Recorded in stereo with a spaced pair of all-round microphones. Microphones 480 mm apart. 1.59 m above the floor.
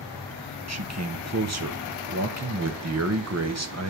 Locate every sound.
0.7 s a man speaking: 35° right (ahead or behind), 1.1 m